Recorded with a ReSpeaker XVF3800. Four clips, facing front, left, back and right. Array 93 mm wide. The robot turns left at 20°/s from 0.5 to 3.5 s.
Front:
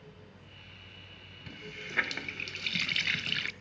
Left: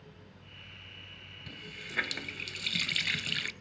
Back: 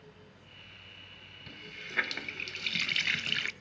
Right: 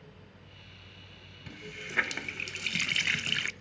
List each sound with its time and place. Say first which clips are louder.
1.5 s a running tap: right 3 dB, front 2 dB; 65° right, 0.6 m; by 3.5 s 105° right, 0.6 m